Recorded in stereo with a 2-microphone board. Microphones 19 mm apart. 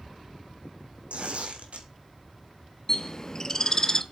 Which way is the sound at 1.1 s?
80° right.